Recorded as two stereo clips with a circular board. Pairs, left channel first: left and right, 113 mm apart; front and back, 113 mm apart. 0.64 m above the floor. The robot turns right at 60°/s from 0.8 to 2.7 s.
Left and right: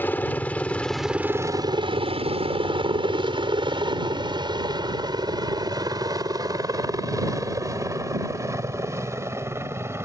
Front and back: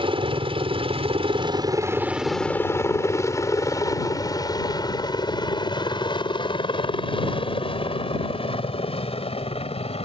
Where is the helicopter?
160° left; by 10.1 s 25° right.